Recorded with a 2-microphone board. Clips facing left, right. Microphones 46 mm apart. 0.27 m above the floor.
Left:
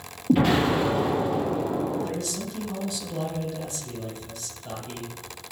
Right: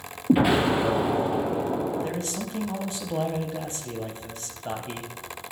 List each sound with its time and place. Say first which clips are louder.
0.3 s an explosion: even; 15° right (ahead or behind), 3 m
2.0 s a man speaking: even; 35° right (ahead or behind), 1.2 m